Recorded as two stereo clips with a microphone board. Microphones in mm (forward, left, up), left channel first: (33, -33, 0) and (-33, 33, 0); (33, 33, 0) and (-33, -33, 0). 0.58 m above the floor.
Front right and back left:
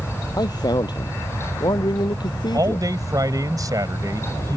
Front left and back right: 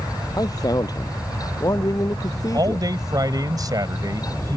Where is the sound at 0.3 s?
Straight ahead; by 2.9 s 5° right.